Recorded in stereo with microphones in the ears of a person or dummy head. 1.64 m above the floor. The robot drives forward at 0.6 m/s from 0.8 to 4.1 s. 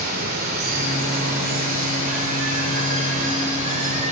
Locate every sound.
0.0 s running water: 50° right (ahead or behind), 5.5 m; by 4.1 s 35° right (ahead or behind), 6.5 m